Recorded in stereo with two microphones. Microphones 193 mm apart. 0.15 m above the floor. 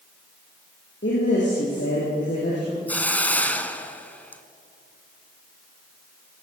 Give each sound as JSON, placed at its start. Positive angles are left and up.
{"t": 1.0, "sound": "a woman speaking", "side_deg": 65, "distance_m": 7.0}
{"t": 2.9, "sound": "a hiss", "side_deg": 10, "distance_m": 1.4}